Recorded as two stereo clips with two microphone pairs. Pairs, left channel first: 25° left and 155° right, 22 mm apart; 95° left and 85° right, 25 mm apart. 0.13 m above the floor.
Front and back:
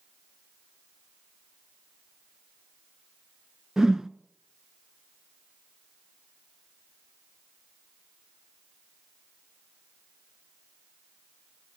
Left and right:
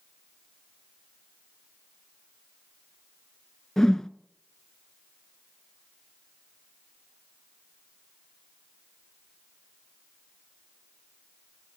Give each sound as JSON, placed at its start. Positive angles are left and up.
{"t": 3.8, "sound": "a whoosh", "azimuth_deg": 160, "distance_m": 0.7}